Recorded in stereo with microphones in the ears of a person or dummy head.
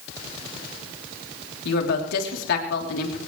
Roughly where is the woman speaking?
Left.